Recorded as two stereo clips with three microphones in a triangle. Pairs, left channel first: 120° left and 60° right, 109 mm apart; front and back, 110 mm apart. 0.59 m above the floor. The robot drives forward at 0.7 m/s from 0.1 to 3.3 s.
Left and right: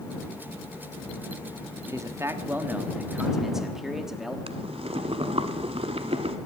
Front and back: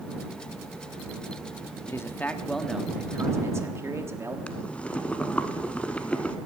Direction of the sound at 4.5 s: 80° right.